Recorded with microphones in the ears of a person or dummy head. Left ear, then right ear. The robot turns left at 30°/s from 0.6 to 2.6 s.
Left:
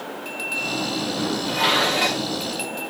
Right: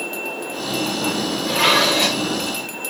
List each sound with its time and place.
1.5 s dishes clattering: 15° right (ahead or behind), 2.0 m; by 2.2 s 5° left (ahead or behind), 2.0 m